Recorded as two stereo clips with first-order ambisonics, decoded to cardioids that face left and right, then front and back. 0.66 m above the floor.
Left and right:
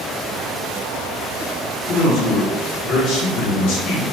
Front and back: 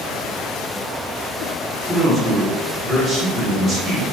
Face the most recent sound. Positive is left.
turn(degrees=85)